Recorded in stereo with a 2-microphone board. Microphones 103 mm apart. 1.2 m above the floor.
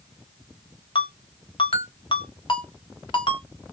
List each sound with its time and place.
0.9 s a ringtone: 50° left (ahead or behind), 1.0 m